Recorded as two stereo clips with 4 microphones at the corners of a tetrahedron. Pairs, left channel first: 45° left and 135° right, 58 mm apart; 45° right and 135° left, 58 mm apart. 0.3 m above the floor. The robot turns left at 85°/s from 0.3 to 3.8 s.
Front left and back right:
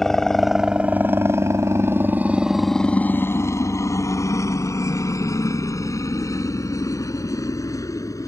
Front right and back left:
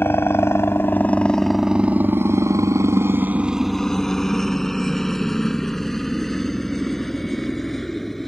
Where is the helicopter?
35° right; by 8.3 s 45° left.